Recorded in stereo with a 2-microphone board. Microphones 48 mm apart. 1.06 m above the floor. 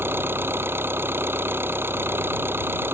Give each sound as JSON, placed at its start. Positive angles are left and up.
{"t": 0.0, "sound": "an engine running", "side_deg": -55}